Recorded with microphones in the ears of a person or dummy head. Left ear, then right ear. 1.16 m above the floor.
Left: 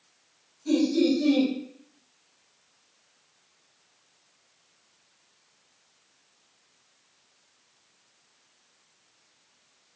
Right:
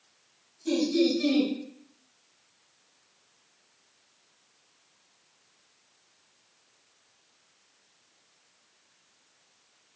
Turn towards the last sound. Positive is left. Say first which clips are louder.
# left 2 dB
turn(degrees=-45)  # may be behind; listen again after turning